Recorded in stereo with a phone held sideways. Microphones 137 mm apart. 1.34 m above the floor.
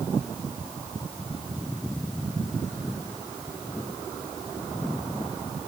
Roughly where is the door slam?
No door slam in this recording.